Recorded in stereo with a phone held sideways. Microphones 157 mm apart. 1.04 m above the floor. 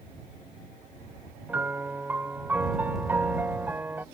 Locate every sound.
1.5 s a piano: 10° right (ahead or behind)